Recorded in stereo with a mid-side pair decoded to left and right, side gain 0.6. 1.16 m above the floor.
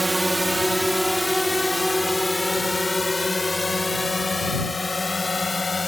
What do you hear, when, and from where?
0.0 s a drone: 10° right; by 5.9 s 20° left